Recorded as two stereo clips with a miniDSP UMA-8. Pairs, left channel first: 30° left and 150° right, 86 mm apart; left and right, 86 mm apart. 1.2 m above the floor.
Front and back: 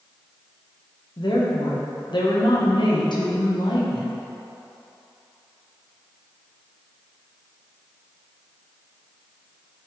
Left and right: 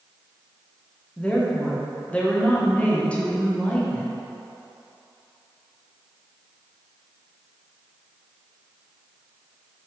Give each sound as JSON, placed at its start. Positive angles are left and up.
{"t": 1.2, "sound": "a woman speaking", "azimuth_deg": 20, "distance_m": 1.1}